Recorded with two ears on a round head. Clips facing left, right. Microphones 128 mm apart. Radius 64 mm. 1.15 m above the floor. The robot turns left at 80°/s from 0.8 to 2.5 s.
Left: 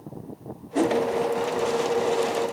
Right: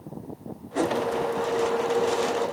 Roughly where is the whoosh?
Left.